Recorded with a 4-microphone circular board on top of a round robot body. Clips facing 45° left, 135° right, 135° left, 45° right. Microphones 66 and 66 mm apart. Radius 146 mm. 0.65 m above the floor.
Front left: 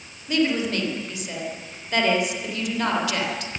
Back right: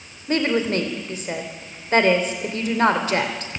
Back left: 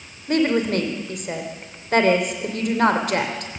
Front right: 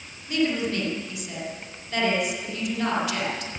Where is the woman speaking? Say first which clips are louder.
Back right 2 dB, back left 5 dB; 175° left, 3.5 m.